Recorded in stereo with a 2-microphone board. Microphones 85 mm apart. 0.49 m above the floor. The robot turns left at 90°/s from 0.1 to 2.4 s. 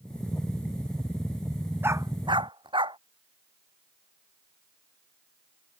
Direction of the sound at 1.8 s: 25° right (ahead or behind).